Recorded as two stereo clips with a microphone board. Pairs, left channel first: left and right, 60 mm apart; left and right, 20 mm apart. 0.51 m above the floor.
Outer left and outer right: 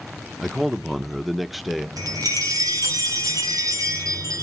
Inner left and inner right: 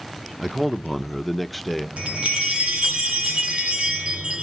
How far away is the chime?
About 2 m.